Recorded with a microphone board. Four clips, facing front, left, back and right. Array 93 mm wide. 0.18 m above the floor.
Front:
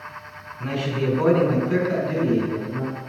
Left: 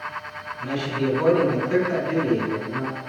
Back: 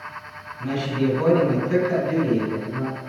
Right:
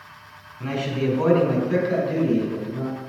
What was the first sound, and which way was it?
A man speaking, 55° right.